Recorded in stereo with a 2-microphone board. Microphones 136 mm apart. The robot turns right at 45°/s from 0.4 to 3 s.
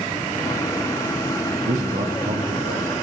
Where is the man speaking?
125° right, 0.7 m; by 2.9 s 70° right, 0.7 m.